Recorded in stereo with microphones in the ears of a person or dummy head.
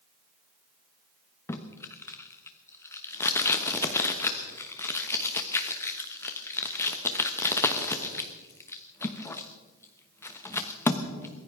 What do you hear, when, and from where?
1.5 s tape being pulled: 15° left (ahead or behind), 1.1 m